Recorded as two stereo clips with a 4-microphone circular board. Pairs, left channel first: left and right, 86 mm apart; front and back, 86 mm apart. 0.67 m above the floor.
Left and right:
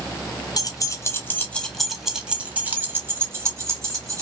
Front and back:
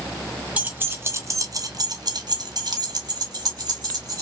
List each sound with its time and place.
0.6 s keys jangling: 110° left, 0.8 m; by 4.2 s 140° right, 1.7 m